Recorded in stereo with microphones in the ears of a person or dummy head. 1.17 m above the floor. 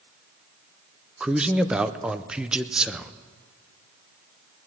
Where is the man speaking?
Centre (ahead or behind), 0.6 m.